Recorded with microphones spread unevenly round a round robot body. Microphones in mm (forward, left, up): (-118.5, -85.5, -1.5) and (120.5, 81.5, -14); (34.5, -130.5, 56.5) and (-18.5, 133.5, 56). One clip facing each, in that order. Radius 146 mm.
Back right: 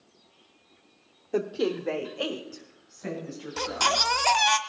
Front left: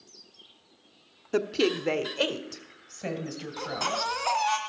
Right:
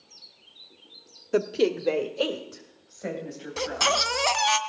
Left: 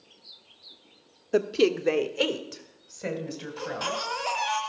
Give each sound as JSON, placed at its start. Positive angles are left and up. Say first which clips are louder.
{"t": 1.3, "sound": "a woman speaking", "louder": "front left 1 dB, left 1 dB", "azimuth_deg": -5, "distance_m": 0.7}
{"t": 3.6, "sound": "a baby crying", "louder": "back right 5 dB, right 7 dB", "azimuth_deg": -105, "distance_m": 1.3}